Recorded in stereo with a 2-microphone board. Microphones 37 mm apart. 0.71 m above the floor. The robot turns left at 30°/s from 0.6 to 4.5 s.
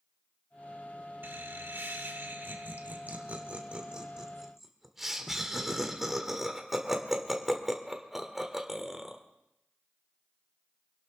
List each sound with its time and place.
1.2 s laughter: 70° right (ahead or behind), 1.7 m; by 9.2 s 5° right (ahead or behind), 1.7 m